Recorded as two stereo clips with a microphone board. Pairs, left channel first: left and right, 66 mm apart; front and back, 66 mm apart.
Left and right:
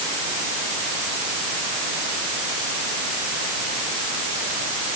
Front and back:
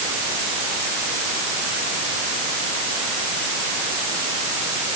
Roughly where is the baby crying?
No baby crying in this recording.